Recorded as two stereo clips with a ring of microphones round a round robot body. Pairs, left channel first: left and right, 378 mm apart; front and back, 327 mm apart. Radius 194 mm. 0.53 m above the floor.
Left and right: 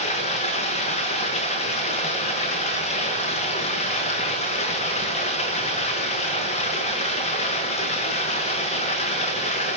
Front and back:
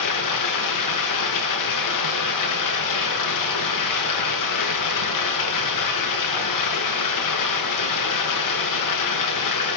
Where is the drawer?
No drawer in this recording.